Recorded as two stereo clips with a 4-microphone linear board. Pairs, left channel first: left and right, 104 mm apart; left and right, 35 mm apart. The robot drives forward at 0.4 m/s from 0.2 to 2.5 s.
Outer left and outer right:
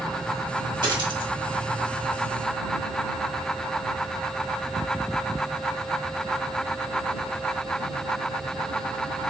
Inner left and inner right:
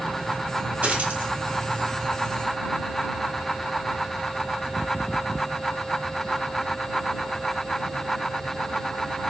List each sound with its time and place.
0.8 s a dropped coin: 45° right (ahead or behind), 1.3 m; by 1.3 s 55° right (ahead or behind), 1.2 m